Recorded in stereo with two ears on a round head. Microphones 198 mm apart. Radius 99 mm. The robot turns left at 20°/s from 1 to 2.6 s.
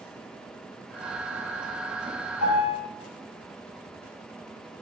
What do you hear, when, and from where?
2.4 s a piano: 80° left, 5 m; by 2.8 s 85° left, 5 m